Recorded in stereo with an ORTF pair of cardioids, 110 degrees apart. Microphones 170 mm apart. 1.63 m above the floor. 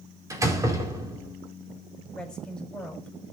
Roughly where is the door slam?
Ahead.